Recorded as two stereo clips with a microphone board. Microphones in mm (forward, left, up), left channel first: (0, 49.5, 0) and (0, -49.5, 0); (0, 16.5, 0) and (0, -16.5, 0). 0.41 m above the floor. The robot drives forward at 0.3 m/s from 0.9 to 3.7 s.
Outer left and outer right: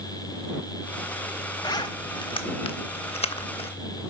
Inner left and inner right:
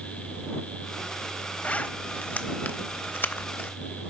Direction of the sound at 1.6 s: 40° left (ahead or behind).